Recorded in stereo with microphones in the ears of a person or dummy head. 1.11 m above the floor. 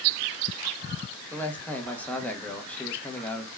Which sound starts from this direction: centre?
A man speaking, at 1.3 s.